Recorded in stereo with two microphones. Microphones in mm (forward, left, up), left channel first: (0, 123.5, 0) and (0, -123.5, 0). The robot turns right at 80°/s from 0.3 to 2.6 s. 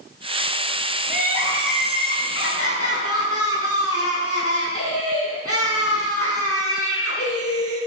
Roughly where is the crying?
Ahead right.